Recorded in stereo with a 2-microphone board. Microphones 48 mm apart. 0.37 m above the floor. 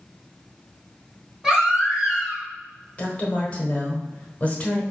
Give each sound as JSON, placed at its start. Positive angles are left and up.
{"t": 1.4, "sound": "a baby crying", "side_deg": -5, "distance_m": 2.0}
{"t": 3.0, "sound": "a woman speaking", "side_deg": 30, "distance_m": 1.0}